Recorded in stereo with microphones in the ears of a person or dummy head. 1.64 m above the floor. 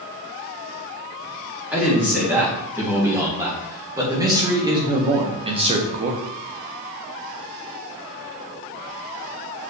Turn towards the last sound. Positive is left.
turn(degrees=-40)  # may be behind; listen again after turning